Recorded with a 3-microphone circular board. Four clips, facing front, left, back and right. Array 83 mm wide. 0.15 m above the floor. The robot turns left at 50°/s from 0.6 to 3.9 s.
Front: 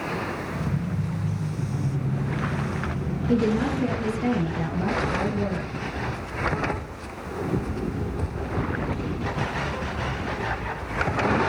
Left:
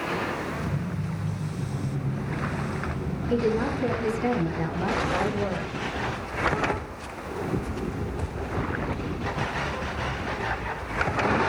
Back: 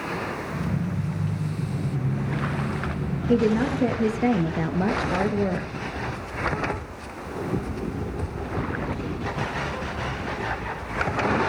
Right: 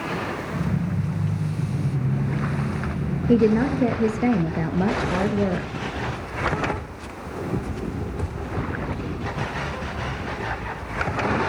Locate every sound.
3.3 s a woman speaking: 100° right, 2.5 m; by 5.7 s 130° right, 2.5 m